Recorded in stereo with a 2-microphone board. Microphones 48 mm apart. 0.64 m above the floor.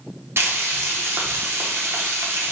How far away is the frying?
About 0.8 m.